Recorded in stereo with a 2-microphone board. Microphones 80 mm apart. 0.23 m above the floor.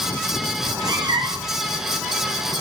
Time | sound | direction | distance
0.6 | a cat meowing | 60° right (ahead or behind) | 1.3 m